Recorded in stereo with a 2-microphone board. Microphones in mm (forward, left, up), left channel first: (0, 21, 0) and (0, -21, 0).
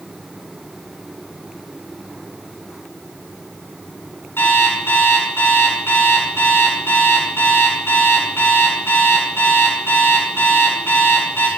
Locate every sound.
4.4 s an alarm clock: 70° left (ahead or behind), 8 m